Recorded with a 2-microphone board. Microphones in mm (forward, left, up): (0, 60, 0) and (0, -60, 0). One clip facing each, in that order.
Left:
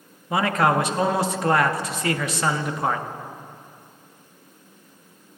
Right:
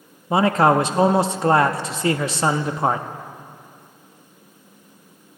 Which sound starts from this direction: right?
A man speaking, at 0.3 s.